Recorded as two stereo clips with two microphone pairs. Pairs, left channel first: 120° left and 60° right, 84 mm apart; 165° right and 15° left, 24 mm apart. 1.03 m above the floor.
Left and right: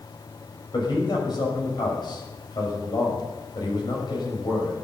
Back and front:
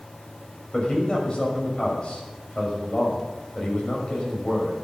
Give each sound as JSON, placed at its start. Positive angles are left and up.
{"t": 0.7, "sound": "a man speaking", "azimuth_deg": 150, "distance_m": 6.0}